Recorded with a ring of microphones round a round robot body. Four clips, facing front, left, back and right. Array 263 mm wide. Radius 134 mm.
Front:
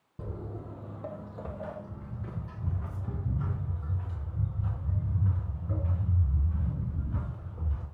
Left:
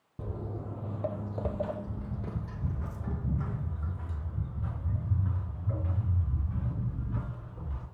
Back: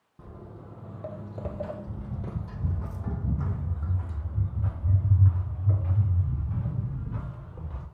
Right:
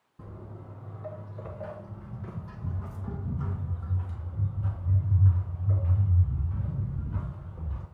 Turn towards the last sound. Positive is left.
turn(degrees=175)